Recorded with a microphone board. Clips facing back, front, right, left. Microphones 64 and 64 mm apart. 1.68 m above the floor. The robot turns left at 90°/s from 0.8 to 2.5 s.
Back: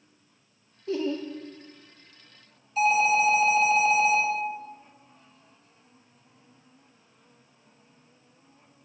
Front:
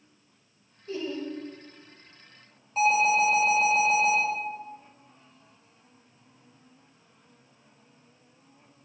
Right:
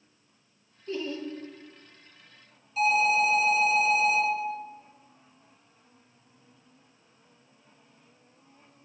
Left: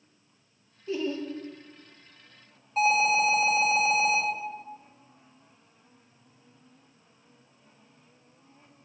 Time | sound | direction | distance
0.9 | laughter | 175° left | 1.1 m
2.8 | an alarm | 50° left | 3 m